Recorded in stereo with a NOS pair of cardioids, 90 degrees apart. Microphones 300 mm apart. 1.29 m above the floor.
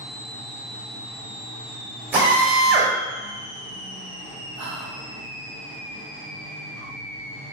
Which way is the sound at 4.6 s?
65° right.